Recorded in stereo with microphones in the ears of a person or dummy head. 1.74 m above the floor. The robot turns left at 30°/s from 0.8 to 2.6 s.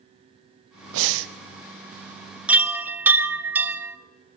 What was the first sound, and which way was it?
Breathing, 80° right.